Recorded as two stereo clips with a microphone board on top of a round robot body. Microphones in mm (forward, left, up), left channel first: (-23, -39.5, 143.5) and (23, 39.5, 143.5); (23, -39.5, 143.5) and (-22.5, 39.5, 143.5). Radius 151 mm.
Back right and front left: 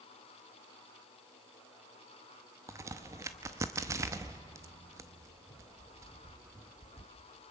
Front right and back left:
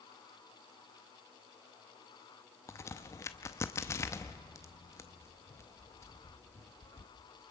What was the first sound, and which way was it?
A crack, straight ahead.